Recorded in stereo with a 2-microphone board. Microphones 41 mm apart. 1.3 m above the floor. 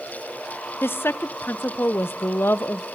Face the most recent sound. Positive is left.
turn(degrees=75)  # may be behind; listen again after turning